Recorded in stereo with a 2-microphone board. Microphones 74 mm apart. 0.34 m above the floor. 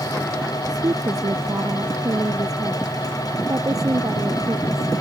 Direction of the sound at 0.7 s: 55° right (ahead or behind).